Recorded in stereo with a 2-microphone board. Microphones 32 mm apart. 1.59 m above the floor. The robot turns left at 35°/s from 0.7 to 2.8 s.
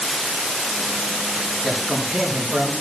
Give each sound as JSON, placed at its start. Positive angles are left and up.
{"t": 1.6, "sound": "a man speaking", "azimuth_deg": -5, "distance_m": 4.5}